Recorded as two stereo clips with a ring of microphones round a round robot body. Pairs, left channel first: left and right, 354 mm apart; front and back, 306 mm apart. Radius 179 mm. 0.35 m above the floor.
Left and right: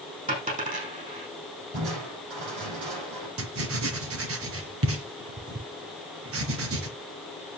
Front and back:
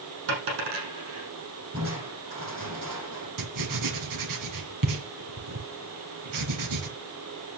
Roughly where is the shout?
No shout in this recording.